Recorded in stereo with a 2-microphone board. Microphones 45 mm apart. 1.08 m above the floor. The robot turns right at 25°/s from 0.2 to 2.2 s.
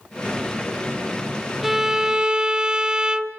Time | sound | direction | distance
1.6 | a violin | 10° right (ahead or behind) | 0.8 m